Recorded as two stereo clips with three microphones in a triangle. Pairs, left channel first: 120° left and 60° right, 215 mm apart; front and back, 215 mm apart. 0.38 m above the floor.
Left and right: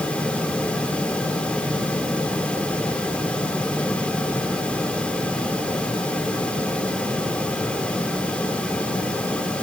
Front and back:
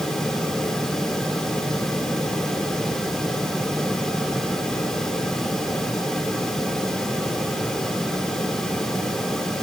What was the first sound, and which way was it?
Only background noise.